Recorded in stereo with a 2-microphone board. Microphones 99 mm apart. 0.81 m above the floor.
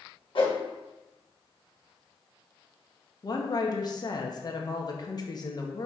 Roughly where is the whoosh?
Left.